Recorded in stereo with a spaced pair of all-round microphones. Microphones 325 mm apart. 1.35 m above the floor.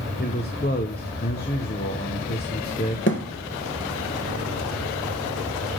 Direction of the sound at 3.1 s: 40° left (ahead or behind).